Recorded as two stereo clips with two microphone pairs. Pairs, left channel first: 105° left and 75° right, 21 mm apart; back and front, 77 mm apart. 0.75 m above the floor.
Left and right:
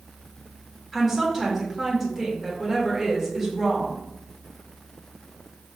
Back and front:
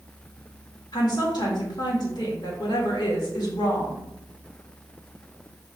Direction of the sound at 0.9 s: 165° right.